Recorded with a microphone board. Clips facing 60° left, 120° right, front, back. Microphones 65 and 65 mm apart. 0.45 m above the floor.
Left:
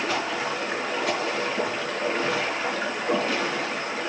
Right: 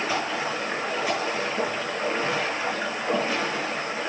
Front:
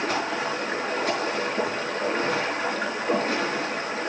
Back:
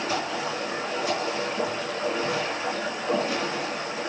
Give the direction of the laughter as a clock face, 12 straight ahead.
No laughter in this recording.